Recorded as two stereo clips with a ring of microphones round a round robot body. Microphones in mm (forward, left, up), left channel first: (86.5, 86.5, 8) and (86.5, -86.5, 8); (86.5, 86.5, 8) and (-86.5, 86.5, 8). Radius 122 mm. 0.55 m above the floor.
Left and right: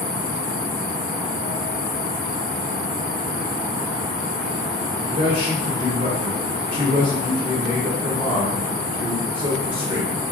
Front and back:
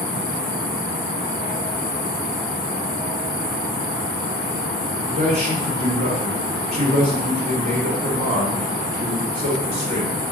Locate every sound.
5.1 s a man speaking: 140° right, 1.0 m